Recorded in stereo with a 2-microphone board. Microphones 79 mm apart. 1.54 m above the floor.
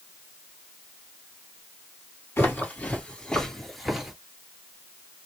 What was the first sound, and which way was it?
Footsteps, 30° left (ahead or behind).